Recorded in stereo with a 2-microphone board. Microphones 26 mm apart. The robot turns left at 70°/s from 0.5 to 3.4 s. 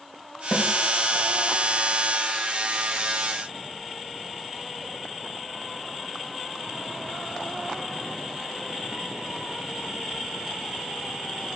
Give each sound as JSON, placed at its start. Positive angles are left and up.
{"t": 0.5, "sound": "a snare drum", "side_deg": 35, "distance_m": 2.5}